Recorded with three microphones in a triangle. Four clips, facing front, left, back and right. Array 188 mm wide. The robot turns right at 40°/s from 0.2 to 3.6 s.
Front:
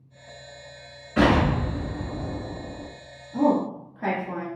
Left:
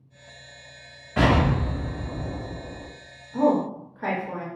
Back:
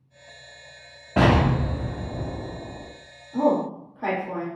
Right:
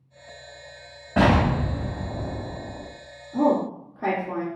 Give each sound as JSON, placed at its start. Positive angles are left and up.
{"t": 1.2, "sound": "an explosion", "azimuth_deg": -145, "distance_m": 1.3}
{"t": 3.3, "sound": "a woman speaking", "azimuth_deg": -95, "distance_m": 1.3}